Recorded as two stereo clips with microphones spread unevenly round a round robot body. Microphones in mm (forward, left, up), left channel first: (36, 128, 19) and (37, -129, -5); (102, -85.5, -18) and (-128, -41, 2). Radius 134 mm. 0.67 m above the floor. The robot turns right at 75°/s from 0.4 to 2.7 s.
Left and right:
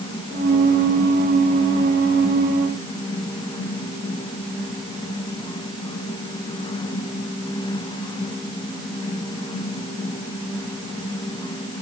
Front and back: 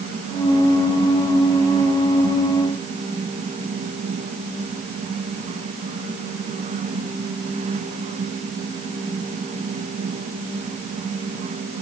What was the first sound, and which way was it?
Only background noise.